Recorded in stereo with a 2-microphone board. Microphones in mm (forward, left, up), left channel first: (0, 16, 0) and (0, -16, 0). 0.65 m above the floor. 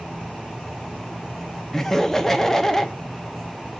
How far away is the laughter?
About 0.6 m.